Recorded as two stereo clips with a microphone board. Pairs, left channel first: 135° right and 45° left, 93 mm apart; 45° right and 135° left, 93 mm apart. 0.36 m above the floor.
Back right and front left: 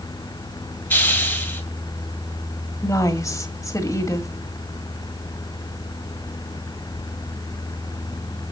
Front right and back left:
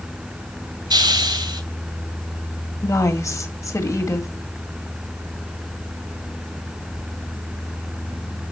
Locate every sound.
0.9 s a hiss: 160° left, 2 m
2.8 s a woman speaking: 90° right, 1.6 m